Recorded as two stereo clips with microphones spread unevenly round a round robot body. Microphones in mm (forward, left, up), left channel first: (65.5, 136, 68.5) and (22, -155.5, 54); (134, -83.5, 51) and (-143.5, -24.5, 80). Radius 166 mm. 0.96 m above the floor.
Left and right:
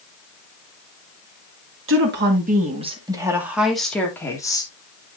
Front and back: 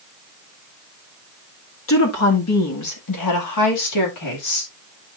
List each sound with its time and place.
1.9 s a woman speaking: 50° right, 1.9 m; by 4.7 s 5° left, 3 m